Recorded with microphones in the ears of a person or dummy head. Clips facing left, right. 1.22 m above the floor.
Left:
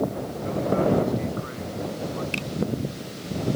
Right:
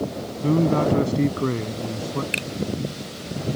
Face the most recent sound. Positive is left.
turn(degrees=-25)  # may be behind; listen again after turning